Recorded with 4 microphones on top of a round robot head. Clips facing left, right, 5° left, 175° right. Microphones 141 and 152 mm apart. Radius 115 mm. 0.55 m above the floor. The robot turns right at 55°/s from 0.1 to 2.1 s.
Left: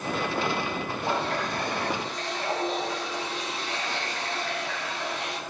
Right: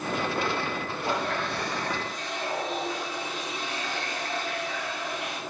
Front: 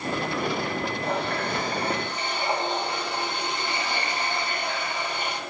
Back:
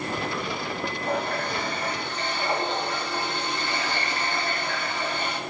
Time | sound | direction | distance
1.0 | a running tap | 20° left | 4 m